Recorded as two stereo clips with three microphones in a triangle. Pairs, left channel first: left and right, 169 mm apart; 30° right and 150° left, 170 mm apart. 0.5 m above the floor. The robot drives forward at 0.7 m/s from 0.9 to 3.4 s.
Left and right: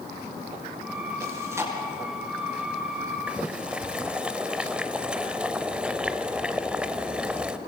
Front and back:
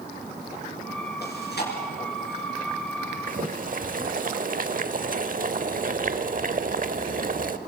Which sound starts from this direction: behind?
Boiling, at 3.3 s.